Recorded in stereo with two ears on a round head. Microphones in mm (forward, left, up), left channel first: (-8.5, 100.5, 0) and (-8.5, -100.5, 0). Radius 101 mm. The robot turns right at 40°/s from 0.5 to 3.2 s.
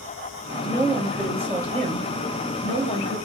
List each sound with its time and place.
0.6 s a woman speaking: 160° left, 3 m; by 3.2 s 100° right, 3 m